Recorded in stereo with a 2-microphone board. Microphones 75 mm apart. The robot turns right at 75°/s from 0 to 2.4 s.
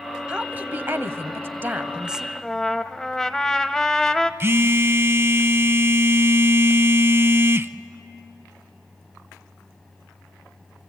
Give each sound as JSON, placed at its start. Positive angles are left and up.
{"t": 0.3, "sound": "a woman speaking", "azimuth_deg": -155, "distance_m": 1.1}
{"t": 2.4, "sound": "a trumpet", "side_deg": 10, "distance_m": 0.8}
{"t": 4.4, "sound": "a phone buzzing", "side_deg": -35, "distance_m": 0.6}